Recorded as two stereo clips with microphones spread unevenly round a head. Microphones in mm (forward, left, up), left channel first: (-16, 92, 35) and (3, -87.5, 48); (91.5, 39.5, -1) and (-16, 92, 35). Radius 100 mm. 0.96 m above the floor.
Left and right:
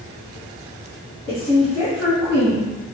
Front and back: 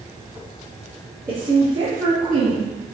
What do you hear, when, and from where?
1.3 s a woman speaking: 150° left, 1.7 m; by 2.8 s 175° left, 0.9 m